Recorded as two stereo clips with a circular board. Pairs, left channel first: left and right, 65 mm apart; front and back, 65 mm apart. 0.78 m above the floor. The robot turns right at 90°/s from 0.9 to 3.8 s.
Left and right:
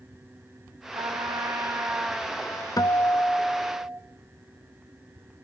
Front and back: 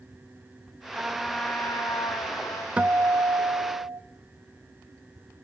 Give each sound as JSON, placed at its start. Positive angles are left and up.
{"t": 0.9, "sound": "a trumpet", "azimuth_deg": -115, "distance_m": 3.5}
{"t": 2.8, "sound": "a guitar", "azimuth_deg": 105, "distance_m": 0.6}